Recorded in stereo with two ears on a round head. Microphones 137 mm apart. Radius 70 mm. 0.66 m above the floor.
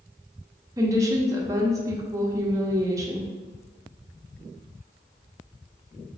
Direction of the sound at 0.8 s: 20° right (ahead or behind).